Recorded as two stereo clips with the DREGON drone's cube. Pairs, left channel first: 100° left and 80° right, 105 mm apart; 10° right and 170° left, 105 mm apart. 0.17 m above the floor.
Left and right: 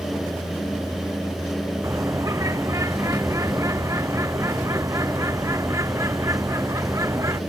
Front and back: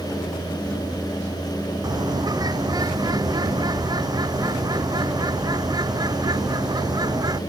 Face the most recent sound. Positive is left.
turn(degrees=-140)